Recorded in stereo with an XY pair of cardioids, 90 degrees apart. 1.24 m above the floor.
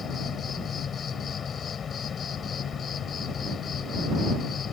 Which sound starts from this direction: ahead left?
An insect, at 0.0 s.